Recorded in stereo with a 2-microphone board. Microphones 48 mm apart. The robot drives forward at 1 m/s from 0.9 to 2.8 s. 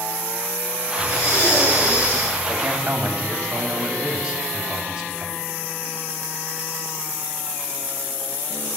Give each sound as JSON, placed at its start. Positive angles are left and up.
{"t": 1.0, "sound": "breathing", "side_deg": 90, "distance_m": 7.5}
{"t": 2.5, "sound": "a man speaking", "side_deg": -20, "distance_m": 2.5}